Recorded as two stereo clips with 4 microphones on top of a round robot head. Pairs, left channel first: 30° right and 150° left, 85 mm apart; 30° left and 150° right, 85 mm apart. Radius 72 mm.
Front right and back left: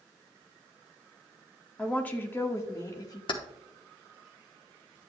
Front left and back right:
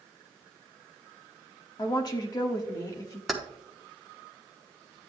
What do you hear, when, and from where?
1.8 s a woman speaking: 40° left, 1.3 m; by 3.2 s 5° right, 1.4 m
3.3 s keys jangling: 60° right, 1.0 m